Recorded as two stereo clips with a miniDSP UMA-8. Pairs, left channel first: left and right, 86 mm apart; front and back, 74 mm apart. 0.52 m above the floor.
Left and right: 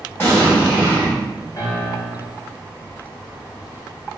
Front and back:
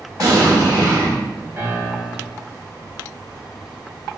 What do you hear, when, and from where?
0.2 s an explosion: 150° left, 1.1 m
1.6 s a piano: 135° left, 1.2 m